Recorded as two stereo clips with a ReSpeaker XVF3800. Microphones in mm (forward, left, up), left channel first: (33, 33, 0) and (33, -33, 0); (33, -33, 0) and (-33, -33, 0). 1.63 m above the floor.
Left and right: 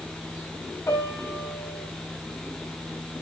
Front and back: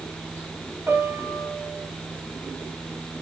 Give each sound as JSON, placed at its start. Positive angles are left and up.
{"t": 0.9, "sound": "a piano", "azimuth_deg": 130, "distance_m": 5.0}